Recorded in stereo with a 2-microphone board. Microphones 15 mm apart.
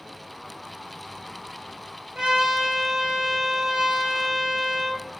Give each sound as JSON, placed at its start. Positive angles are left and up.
{"t": 2.1, "sound": "a trumpet", "side_deg": -60, "distance_m": 5.0}